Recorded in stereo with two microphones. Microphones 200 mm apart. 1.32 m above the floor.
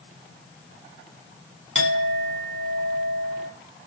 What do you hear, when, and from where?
1.8 s a clink: 70° right (ahead or behind), 2.5 m